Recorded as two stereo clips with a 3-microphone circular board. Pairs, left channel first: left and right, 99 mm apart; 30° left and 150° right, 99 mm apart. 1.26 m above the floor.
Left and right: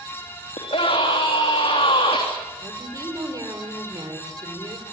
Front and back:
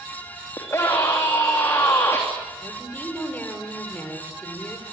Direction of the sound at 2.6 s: 40° right.